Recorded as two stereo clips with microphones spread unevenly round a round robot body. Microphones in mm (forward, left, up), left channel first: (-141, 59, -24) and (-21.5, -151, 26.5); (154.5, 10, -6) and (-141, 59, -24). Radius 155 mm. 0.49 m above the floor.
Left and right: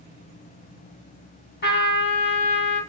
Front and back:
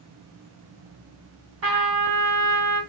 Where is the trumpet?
140° left, 1.7 m.